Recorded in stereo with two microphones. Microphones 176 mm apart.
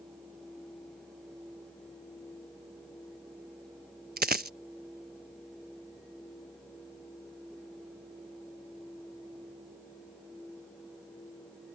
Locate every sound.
4.2 s a dropped coin: 65° right (ahead or behind)